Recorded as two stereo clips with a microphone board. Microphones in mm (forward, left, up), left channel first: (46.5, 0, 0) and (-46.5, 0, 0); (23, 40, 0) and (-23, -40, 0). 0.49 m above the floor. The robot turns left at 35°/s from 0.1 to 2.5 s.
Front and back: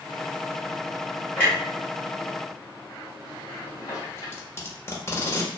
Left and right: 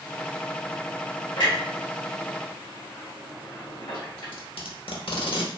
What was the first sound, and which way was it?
A clunk, 80° left.